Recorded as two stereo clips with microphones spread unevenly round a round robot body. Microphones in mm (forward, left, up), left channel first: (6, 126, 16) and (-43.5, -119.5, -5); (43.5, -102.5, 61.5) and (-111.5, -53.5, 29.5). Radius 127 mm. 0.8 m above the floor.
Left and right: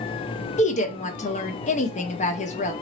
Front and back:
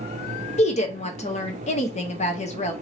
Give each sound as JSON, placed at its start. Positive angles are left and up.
{"t": 0.6, "sound": "a woman speaking", "azimuth_deg": 25, "distance_m": 0.7}